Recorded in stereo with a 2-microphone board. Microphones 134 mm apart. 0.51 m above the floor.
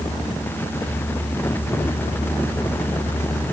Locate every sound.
Only background noise.